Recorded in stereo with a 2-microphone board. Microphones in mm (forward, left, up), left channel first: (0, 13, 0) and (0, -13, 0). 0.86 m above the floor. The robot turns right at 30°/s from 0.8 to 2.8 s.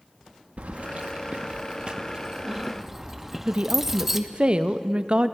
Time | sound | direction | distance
0.6 | keys jangling | 70° right (ahead or behind) | 0.6 m
3.5 | a woman speaking | 45° right (ahead or behind) | 0.5 m